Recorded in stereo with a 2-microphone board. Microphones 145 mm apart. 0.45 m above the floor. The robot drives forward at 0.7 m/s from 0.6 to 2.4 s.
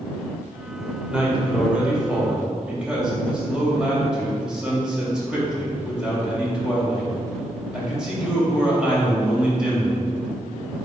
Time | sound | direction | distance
1.1 | a man speaking | 5° right (ahead or behind) | 1.8 m